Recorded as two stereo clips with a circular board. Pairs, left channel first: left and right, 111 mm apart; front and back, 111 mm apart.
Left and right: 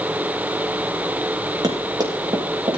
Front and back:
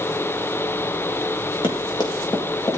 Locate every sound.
1.6 s running footsteps: 40° right, 3 m; by 2.8 s 55° right, 3.5 m